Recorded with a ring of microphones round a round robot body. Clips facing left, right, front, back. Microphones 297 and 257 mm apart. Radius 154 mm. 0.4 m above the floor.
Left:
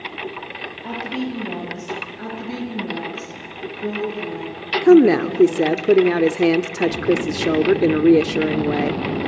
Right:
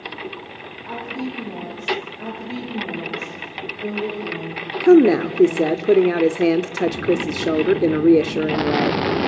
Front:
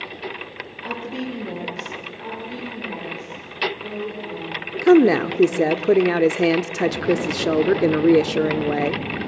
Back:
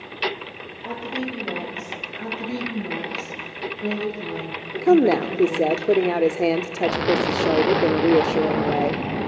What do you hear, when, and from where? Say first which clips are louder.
0.8 s a woman speaking: left 3 dB, even; 80° left, 9.5 m
2.2 s a woman speaking: left 2 dB, back 5 dB; 155° left, 8.5 m
4.8 s a woman speaking: left 1 dB, front 3 dB; 10° left, 0.8 m